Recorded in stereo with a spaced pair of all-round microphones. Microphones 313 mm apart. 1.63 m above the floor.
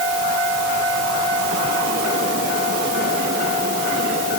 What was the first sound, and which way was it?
Only background noise.